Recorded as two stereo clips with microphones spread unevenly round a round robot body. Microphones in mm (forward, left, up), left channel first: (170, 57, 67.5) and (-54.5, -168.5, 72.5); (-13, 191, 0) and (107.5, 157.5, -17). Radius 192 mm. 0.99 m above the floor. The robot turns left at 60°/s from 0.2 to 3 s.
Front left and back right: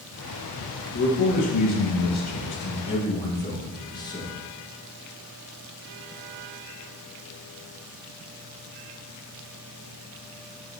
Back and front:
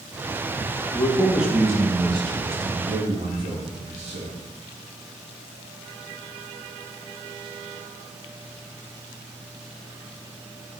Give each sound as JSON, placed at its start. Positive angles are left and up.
{"t": 0.9, "sound": "a man speaking", "azimuth_deg": 95, "distance_m": 1.6}